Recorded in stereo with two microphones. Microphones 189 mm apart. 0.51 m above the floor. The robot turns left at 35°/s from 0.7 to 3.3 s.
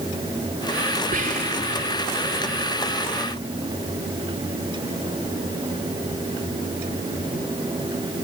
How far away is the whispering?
About 1.9 m.